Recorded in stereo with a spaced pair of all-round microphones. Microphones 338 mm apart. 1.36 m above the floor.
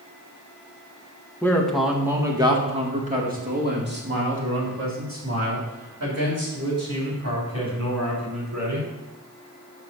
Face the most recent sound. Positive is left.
turn(degrees=-55)  # may be behind; listen again after turning